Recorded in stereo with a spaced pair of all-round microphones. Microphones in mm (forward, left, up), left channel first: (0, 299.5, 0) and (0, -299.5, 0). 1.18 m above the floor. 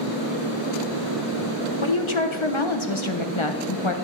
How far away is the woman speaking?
About 1.2 m.